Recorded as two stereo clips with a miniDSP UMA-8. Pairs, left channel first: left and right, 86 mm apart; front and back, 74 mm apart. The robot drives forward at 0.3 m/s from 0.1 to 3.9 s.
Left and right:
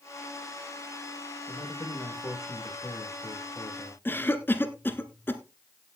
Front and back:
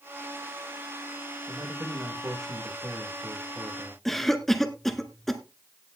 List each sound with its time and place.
1.5 s a man speaking: 135° left, 5.5 m; by 4.0 s 140° left, 6 m
4.0 s a cough: 80° left, 1.4 m